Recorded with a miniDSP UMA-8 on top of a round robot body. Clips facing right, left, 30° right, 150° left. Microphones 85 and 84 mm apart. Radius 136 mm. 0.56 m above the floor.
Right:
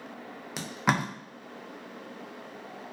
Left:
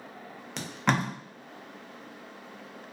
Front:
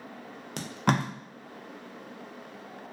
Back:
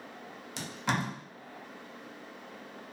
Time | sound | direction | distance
0.6 | tape being pulled | 10° right | 0.6 m